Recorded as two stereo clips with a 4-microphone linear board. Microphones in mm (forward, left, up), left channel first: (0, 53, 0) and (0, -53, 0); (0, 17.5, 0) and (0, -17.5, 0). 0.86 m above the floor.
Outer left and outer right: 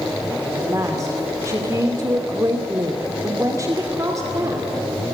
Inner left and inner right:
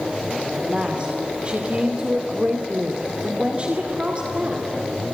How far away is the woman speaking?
About 2 m.